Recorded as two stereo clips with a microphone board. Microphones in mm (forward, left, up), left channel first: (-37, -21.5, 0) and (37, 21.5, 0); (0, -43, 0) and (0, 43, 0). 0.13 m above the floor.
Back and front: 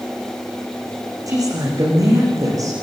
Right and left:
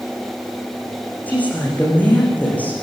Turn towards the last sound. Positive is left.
turn(degrees=-20)